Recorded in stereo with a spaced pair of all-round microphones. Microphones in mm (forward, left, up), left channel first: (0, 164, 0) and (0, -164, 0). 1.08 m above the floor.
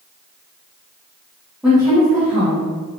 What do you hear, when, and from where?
1.6 s a woman speaking: 5° right (ahead or behind), 0.7 m; by 2.7 s 55° left (ahead or behind), 1.3 m